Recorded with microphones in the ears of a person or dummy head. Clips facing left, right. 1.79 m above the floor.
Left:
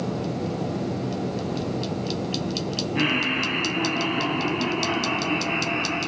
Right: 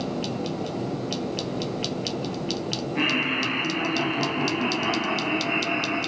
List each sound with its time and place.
3.0 s laughter: centre (ahead or behind), 2 m; by 6.0 s 15° right (ahead or behind), 4 m